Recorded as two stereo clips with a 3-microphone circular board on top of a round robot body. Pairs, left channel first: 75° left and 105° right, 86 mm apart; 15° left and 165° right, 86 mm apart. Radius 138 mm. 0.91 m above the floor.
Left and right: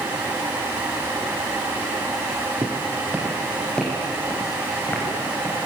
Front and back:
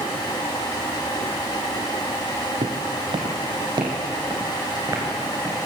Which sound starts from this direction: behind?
Footsteps, at 2.6 s.